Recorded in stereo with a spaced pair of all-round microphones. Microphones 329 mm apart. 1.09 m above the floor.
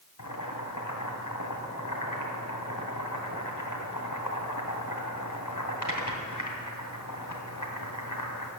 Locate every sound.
0.2 s boiling: 75° left (ahead or behind), 2.5 m